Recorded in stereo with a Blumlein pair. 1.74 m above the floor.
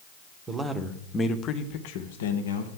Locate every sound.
0.5 s a man speaking: 15° right, 1.0 m; by 2.7 s 70° left, 1.2 m